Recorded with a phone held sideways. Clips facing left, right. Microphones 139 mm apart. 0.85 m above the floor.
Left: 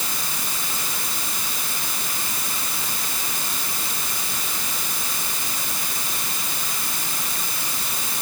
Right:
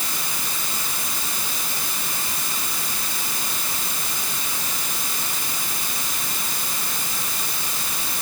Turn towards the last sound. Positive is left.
No sound to turn to.